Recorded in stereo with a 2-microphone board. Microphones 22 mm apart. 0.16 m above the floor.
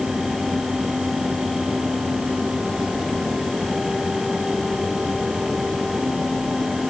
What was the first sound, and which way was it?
Only background noise.